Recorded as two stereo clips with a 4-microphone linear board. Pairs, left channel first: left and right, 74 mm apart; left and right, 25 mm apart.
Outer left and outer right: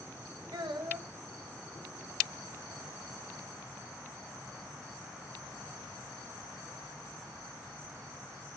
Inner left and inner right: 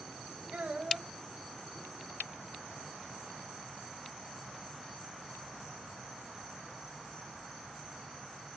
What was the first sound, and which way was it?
A child speaking, 85° right.